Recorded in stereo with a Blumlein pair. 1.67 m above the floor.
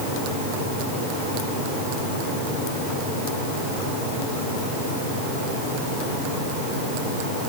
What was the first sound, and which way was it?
Only background noise.